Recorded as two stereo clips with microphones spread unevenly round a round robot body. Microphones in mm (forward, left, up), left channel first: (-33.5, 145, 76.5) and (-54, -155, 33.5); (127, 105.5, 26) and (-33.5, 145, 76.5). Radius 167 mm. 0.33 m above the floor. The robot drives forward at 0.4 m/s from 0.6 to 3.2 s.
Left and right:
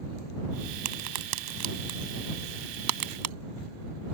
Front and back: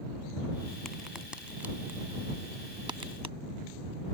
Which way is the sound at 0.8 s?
95° right.